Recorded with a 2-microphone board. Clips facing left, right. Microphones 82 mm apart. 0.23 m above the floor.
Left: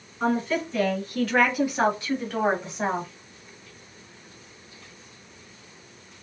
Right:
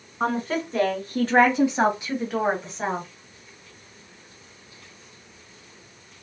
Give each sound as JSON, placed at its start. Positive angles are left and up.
{"t": 0.2, "sound": "a woman speaking", "side_deg": -55, "distance_m": 2.0}